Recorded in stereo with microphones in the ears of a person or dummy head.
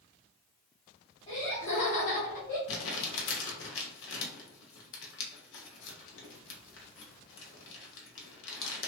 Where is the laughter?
30° left (ahead or behind), 0.9 m; by 2.6 s 65° left (ahead or behind), 1.4 m.